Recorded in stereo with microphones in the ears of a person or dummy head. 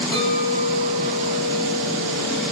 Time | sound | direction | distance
0.1 | a clink | 10° left (ahead or behind) | 2 m